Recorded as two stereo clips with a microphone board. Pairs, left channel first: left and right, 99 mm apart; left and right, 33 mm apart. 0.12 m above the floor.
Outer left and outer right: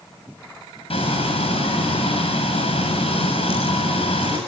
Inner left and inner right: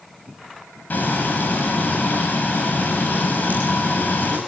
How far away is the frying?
About 6.5 m.